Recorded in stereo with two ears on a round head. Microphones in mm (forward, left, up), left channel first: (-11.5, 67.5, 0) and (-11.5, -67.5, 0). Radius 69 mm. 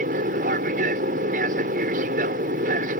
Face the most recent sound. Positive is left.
turn(degrees=-55)  # may be behind; listen again after turning